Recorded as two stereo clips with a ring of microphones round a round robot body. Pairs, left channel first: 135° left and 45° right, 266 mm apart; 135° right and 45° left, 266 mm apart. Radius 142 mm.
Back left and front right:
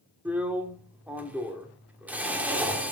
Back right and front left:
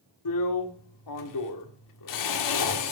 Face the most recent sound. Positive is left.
turn(degrees=-130)